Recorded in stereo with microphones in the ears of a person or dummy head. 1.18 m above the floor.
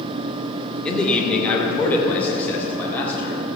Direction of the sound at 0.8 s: 10° left (ahead or behind).